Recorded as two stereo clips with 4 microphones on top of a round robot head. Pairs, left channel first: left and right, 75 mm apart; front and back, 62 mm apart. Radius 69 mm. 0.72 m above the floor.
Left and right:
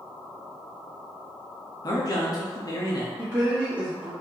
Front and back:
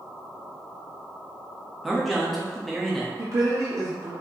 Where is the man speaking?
85° left, 0.9 m.